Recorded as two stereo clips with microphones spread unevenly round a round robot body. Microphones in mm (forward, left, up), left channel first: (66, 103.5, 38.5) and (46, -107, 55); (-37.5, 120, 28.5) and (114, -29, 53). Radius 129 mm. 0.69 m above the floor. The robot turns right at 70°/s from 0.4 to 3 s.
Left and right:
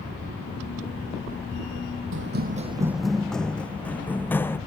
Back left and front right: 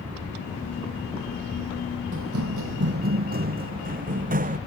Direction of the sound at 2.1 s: 80° right.